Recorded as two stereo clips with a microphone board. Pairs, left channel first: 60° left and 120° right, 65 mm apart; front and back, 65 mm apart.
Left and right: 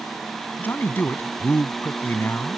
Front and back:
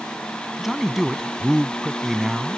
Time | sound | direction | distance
0.6 | a man speaking | 95° left | ?